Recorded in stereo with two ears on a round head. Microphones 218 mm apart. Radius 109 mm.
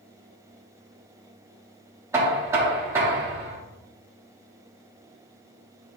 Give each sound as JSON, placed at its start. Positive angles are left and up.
{"t": 2.1, "sound": "knocking", "side_deg": -10, "distance_m": 1.2}